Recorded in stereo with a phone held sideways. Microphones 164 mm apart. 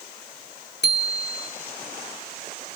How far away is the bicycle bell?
About 2.5 m.